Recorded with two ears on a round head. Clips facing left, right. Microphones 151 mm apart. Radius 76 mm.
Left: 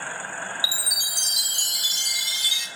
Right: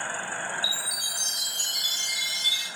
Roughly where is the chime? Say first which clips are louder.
Even; left.